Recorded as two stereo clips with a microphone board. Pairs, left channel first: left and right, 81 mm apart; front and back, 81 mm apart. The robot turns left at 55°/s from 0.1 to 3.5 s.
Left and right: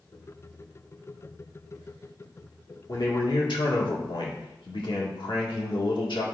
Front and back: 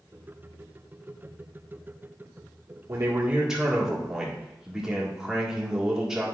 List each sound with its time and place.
2.9 s a man speaking: 130° left, 1.6 m; by 6.2 s 95° left, 1.6 m